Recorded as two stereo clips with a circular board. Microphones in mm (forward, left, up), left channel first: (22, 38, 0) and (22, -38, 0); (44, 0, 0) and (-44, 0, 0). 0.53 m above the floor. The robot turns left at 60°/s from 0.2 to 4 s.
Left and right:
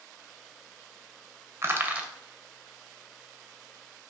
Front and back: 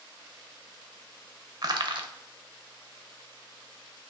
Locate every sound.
1.6 s crushing: 140° right, 0.5 m; by 2.1 s 165° right, 0.5 m